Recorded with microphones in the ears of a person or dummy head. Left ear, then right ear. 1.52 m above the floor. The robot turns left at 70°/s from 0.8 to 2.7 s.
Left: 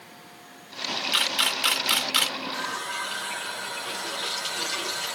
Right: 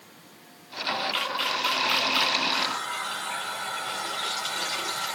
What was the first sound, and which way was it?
A camera shutter, 20° left (ahead or behind).